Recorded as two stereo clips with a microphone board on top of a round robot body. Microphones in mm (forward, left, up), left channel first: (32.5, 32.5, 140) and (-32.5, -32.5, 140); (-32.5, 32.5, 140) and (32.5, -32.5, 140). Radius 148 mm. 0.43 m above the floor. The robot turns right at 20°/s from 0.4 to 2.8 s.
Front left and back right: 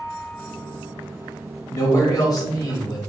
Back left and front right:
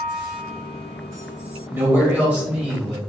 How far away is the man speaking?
About 1.7 m.